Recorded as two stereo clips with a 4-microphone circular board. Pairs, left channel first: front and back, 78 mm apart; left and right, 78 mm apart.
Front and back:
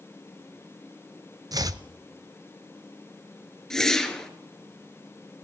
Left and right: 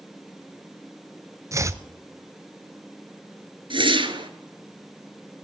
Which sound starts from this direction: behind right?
Chopping, at 1.5 s.